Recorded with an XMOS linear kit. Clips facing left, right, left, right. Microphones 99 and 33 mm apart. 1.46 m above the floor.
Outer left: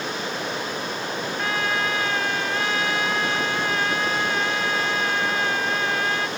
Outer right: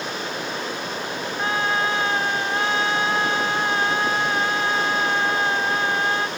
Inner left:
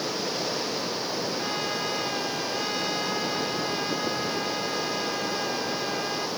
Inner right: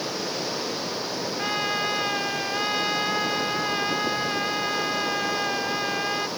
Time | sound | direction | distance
1.4 | a trumpet | 30° right (ahead or behind) | ?